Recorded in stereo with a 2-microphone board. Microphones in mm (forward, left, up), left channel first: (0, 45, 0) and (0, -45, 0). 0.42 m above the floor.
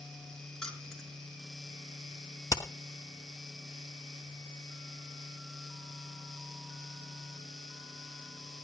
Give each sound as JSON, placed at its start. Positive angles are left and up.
{"t": 0.6, "sound": "keys jangling", "side_deg": 5, "distance_m": 4.0}
{"t": 2.5, "sound": "hammering", "side_deg": 35, "distance_m": 3.5}